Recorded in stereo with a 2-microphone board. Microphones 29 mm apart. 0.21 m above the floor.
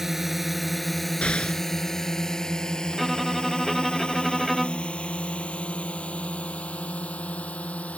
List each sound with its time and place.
0.0 s a drone: 10° right (ahead or behind); by 8.0 s 55° left (ahead or behind)
1.2 s an explosion: 40° left (ahead or behind)
2.9 s a violin: centre (ahead or behind)